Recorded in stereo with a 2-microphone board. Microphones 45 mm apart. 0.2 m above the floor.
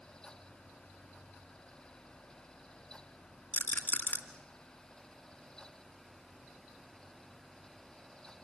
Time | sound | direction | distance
3.5 | a rattle | 40° left (ahead or behind) | 2 m